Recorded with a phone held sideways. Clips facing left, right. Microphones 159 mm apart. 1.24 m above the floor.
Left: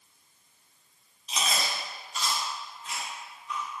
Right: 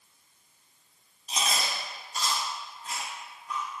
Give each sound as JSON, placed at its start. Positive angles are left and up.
{"t": 1.3, "sound": "chewing", "side_deg": -40, "distance_m": 1.1}